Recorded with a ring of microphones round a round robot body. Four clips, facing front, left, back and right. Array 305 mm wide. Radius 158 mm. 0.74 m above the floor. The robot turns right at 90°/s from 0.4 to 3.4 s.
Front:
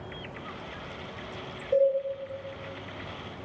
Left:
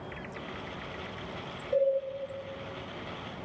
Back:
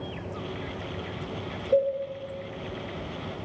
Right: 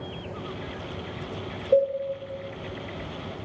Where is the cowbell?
100° right, 1.7 m; by 1.9 s 85° right, 1.7 m.